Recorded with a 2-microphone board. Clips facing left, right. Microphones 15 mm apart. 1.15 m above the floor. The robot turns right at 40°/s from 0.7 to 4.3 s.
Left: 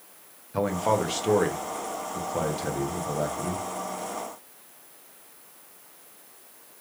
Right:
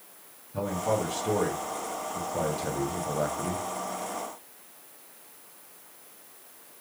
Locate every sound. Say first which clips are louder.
0.5 s a man speaking: left 4 dB; 80° left, 1.1 m; by 3.6 s 160° right, 1.1 m